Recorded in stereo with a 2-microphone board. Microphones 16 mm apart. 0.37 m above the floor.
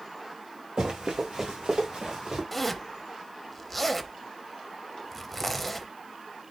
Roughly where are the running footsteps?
Right.